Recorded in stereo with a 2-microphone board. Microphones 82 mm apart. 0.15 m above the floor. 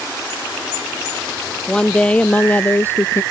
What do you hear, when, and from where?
1.7 s a woman speaking: 10° left (ahead or behind); by 3.2 s 30° left (ahead or behind)